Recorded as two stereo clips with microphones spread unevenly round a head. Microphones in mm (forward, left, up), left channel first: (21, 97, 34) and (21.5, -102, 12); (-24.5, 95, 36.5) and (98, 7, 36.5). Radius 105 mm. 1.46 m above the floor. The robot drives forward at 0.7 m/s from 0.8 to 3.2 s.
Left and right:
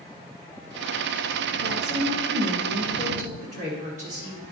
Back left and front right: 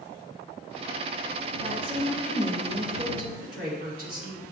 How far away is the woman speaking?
About 1.8 m.